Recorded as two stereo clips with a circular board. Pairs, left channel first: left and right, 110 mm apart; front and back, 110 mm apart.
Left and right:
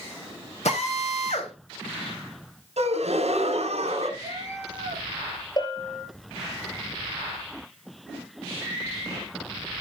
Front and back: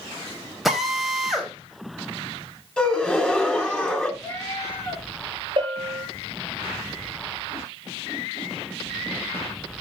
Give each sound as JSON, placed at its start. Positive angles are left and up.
{"t": 0.7, "sound": "a drill", "azimuth_deg": 90, "distance_m": 3.0}
{"t": 2.8, "sound": "a gasp", "azimuth_deg": -80, "distance_m": 2.5}
{"t": 4.2, "sound": "a cat meowing", "azimuth_deg": 65, "distance_m": 5.5}
{"t": 5.6, "sound": "a bell", "azimuth_deg": 140, "distance_m": 4.0}